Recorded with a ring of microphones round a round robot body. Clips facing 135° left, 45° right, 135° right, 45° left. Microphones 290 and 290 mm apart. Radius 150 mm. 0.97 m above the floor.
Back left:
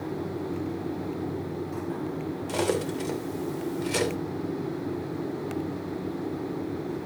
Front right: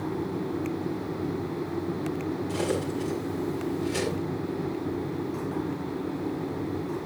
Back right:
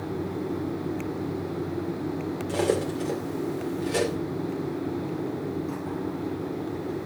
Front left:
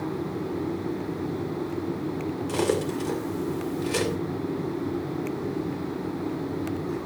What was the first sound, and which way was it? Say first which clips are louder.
Cutlery clinking: back left 4 dB, even; 115° left.